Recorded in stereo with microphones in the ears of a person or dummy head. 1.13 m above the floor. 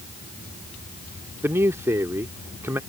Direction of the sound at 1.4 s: 15° right (ahead or behind).